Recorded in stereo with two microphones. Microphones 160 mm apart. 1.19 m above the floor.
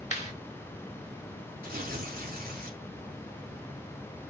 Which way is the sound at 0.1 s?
45° left (ahead or behind).